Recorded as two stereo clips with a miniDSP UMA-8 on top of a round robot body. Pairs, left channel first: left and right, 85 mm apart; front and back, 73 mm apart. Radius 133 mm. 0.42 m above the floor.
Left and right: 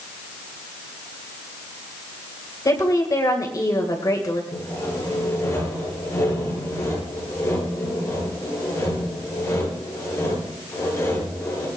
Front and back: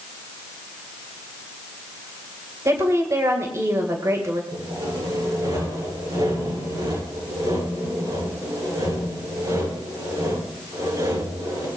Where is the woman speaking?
135° left, 3 m.